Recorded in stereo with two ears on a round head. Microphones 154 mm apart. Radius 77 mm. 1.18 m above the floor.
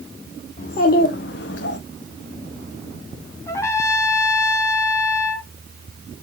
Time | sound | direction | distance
0.6 | a child speaking | 45° left (ahead or behind) | 1.8 m
3.5 | a trumpet | 15° left (ahead or behind) | 1.5 m